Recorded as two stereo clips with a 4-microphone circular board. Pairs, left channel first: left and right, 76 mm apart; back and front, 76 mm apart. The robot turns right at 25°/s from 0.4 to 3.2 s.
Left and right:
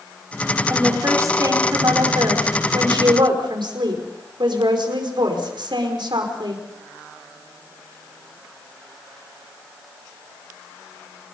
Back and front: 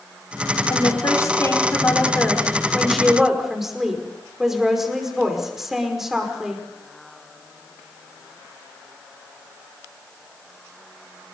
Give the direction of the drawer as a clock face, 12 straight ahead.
No drawer in this recording.